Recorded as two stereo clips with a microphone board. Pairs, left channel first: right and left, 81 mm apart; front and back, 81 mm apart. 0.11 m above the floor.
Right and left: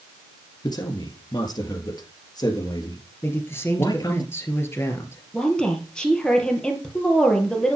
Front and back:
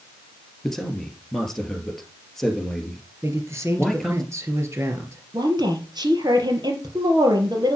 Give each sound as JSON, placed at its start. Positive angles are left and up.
{"t": 0.6, "sound": "a man speaking", "azimuth_deg": -85, "distance_m": 2.0}
{"t": 3.2, "sound": "a man speaking", "azimuth_deg": -140, "distance_m": 2.5}
{"t": 5.3, "sound": "a woman speaking", "azimuth_deg": -170, "distance_m": 3.0}